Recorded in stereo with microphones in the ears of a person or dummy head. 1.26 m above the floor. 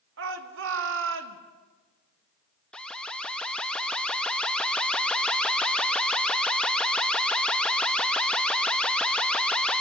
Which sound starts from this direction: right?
A shout, at 0.2 s.